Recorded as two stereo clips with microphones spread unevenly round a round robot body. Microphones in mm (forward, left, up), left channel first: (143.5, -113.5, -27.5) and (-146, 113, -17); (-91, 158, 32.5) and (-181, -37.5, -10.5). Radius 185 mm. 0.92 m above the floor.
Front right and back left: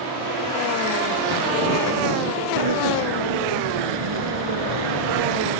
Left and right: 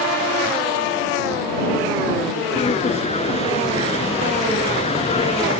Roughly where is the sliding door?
Behind left.